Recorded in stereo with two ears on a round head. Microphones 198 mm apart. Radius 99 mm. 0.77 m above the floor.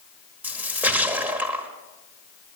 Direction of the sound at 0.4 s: 10° right (ahead or behind).